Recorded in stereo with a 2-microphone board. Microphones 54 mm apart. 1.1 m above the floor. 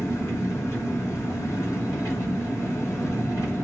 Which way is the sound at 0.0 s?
60° left (ahead or behind).